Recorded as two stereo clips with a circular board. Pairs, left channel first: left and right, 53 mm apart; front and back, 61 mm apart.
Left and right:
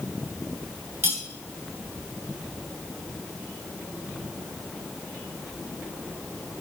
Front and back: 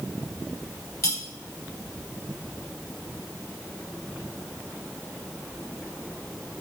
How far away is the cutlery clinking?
About 2.5 m.